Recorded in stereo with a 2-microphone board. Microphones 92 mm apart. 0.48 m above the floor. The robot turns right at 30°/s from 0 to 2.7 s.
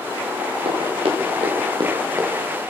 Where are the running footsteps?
85° right, 5.5 m; by 2.6 s 20° right (ahead or behind), 4 m.